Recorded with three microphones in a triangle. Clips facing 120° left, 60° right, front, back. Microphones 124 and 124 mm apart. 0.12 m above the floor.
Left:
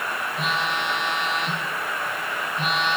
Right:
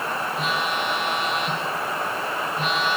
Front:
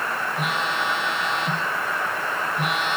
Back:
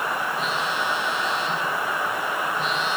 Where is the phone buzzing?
30° left, 5 m.